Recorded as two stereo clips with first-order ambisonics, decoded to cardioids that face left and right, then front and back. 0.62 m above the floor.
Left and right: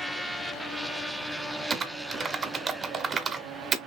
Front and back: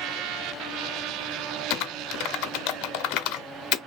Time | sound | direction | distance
1.7 | typing on a keyboard | 20° right | 0.7 m